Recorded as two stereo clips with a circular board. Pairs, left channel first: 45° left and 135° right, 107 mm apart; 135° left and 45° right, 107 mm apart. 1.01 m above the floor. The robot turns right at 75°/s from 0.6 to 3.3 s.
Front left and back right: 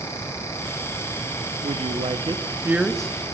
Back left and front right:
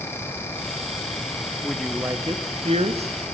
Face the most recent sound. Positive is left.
turn(degrees=-20)